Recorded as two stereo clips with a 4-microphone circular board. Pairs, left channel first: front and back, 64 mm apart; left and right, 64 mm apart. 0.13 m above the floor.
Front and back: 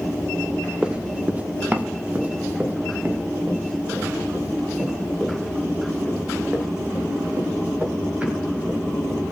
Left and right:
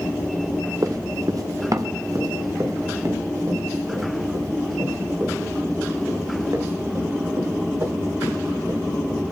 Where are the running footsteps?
110° right, 1.1 m; by 9.2 s 125° right, 11.5 m.